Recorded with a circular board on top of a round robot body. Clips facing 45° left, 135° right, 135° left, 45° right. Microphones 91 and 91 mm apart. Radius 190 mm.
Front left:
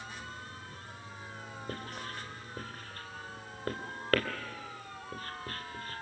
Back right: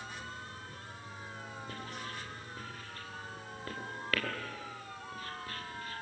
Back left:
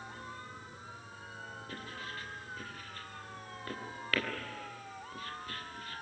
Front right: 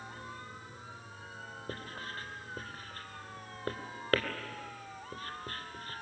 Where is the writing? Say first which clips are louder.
Front left 4 dB, front right 3 dB; 5° left, 3 m.